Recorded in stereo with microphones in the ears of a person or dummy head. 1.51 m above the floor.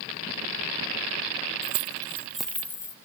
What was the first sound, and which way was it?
Keys jangling, 30° right (ahead or behind).